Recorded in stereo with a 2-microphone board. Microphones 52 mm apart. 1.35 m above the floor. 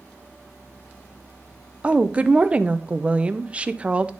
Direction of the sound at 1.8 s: 25° right (ahead or behind).